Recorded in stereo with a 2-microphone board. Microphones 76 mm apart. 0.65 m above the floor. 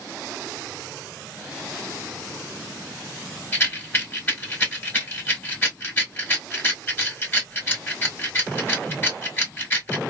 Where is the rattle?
30° left (ahead or behind), 2.0 m.